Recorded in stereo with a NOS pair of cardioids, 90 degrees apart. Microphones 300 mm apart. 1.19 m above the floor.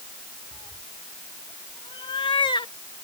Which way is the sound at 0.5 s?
15° left.